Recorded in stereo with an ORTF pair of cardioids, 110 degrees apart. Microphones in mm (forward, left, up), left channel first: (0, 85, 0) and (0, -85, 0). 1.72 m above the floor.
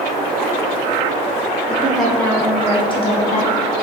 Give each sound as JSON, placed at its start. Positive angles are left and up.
{"t": 1.7, "sound": "a woman speaking", "azimuth_deg": -10, "distance_m": 1.2}